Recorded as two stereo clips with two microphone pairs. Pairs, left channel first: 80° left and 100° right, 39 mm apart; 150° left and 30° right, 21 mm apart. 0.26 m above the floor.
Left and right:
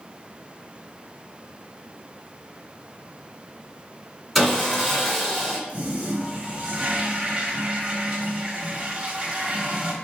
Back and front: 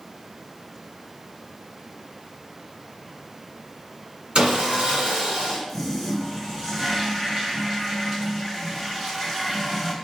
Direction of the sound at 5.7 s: 105° right.